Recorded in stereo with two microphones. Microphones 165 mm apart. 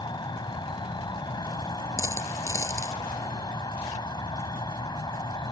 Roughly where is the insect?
Left.